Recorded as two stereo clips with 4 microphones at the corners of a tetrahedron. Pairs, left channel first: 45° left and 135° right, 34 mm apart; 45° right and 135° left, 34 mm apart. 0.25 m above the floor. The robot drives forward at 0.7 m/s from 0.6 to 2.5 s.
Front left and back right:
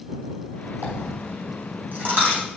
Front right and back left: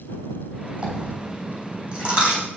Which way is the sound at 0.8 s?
160° right.